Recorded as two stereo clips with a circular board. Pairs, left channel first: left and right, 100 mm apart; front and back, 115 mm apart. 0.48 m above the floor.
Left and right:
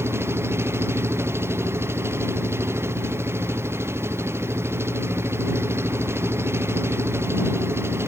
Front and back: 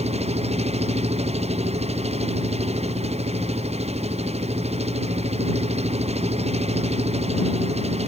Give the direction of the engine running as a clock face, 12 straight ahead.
5 o'clock.